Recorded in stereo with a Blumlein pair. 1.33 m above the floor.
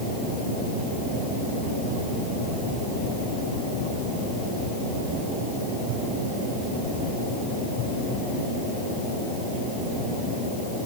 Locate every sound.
Only background noise.